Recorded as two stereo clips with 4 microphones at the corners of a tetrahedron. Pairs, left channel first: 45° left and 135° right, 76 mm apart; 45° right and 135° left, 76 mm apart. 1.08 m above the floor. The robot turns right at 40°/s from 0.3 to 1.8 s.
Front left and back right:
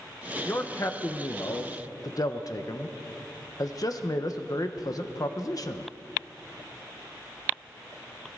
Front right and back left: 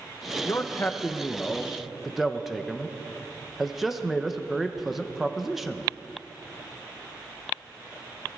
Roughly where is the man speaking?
Ahead.